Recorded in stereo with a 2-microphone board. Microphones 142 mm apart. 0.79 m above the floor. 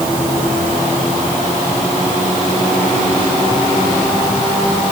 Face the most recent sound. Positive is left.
No sound to turn to.